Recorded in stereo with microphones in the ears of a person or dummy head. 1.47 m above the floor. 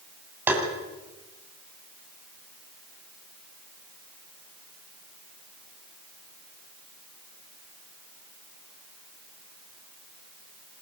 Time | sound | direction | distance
0.5 | tapping | 10° right (ahead or behind) | 8 m